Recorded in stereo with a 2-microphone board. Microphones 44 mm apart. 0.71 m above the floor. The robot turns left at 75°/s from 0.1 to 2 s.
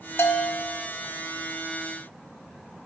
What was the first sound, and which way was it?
A bell, 80° left.